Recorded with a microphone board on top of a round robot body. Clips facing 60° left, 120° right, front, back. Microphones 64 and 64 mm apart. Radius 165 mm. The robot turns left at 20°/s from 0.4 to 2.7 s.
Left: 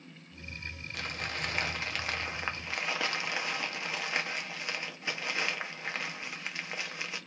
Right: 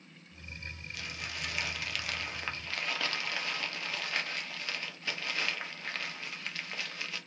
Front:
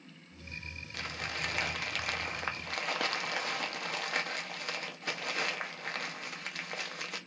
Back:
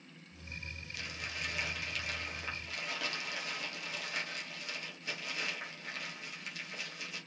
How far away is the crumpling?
About 1.0 m.